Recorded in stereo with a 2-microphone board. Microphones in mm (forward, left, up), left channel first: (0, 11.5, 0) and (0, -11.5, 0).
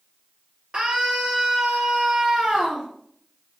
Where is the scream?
40° right (ahead or behind), 4.5 m.